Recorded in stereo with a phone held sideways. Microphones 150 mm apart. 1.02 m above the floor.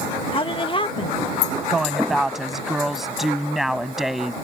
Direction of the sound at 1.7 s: Centre (ahead or behind).